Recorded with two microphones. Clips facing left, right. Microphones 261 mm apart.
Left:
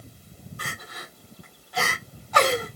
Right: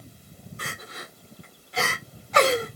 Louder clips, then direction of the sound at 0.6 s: Right 2 dB; 25° right (ahead or behind).